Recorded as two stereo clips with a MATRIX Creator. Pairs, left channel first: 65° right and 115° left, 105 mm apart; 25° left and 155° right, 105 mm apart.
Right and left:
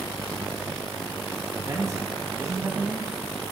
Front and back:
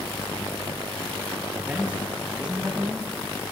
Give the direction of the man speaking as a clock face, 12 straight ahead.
7 o'clock.